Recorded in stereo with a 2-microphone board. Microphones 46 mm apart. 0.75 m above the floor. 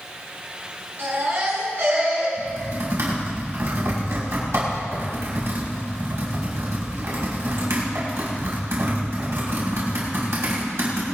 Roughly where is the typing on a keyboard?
Right.